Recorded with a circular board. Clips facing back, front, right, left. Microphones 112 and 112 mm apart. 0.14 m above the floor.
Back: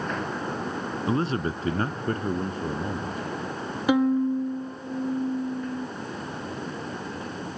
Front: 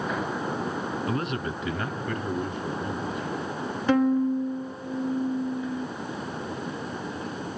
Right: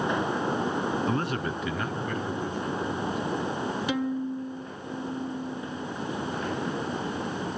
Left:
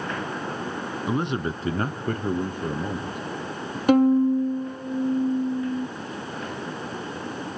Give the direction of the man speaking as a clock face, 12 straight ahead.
7 o'clock.